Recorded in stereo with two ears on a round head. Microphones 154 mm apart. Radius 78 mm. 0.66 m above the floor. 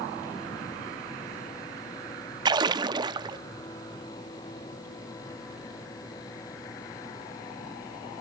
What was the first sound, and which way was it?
A splash, 25° right (ahead or behind).